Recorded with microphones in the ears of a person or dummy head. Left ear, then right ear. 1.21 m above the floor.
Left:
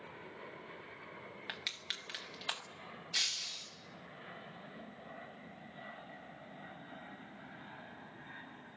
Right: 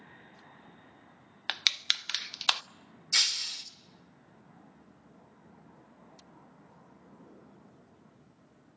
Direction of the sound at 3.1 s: 65° right (ahead or behind).